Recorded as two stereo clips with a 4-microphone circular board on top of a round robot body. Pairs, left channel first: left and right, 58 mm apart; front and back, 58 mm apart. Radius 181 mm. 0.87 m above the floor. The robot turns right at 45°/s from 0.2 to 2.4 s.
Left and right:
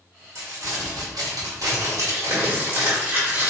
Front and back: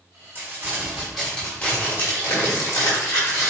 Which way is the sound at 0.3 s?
125° right.